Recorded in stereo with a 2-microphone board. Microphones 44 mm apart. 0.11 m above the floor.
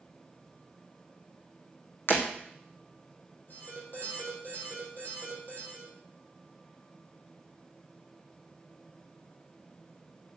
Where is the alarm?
55° left (ahead or behind), 5.5 m.